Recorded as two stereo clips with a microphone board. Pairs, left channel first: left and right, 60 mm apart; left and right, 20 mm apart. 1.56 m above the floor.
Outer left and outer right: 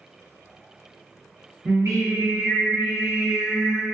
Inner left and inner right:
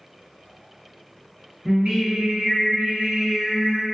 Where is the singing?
65° right (ahead or behind), 1.4 m.